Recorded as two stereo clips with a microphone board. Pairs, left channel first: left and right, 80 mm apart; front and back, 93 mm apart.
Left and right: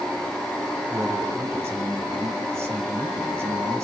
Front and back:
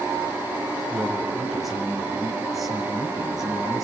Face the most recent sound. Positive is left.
turn(degrees=-95)